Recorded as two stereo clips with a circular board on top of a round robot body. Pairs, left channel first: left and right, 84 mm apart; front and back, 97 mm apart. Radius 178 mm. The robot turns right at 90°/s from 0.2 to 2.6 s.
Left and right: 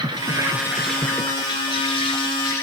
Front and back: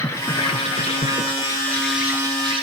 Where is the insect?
60° right, 0.9 m; by 2.6 s 155° left, 0.9 m.